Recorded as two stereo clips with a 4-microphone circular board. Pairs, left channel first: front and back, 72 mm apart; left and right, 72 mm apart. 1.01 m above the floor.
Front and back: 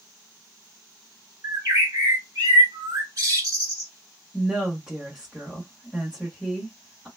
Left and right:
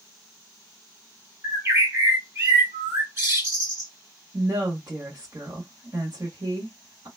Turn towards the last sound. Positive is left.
turn(degrees=-90)